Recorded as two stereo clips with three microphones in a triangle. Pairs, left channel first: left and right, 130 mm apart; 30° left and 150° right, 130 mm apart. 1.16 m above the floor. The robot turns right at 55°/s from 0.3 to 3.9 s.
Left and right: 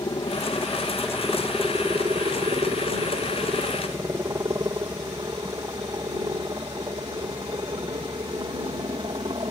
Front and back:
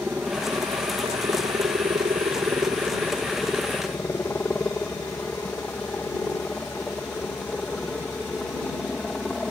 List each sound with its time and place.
0.0 s a helicopter: 135° left; by 9.5 s 55° right